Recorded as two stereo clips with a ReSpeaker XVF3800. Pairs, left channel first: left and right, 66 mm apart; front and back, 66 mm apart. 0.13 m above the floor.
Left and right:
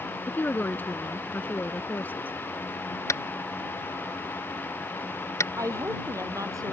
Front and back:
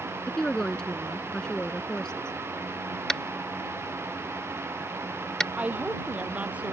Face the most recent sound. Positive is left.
turn(degrees=-110)